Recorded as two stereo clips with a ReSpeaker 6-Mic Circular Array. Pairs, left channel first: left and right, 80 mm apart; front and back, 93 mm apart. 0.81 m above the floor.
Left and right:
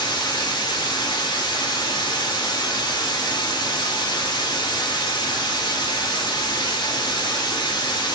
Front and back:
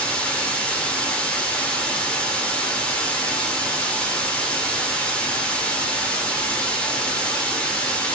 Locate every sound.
0.0 s running water: 75° left, 0.8 m